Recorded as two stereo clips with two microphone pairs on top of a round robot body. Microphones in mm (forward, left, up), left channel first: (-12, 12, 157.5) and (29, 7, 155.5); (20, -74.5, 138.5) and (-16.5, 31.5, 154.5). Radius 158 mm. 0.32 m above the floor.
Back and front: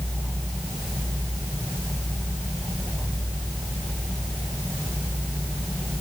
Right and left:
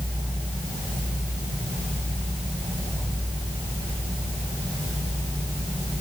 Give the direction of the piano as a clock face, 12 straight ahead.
I don't hear a piano.